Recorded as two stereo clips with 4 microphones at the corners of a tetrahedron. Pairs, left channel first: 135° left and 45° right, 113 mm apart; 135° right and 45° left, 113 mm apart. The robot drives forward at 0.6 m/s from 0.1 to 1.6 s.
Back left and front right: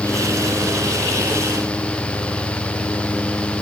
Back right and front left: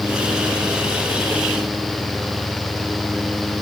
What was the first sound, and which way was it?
Only background noise.